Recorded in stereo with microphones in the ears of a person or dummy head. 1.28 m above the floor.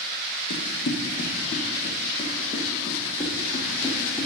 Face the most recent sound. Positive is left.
turn(degrees=15)  # may be behind; listen again after turning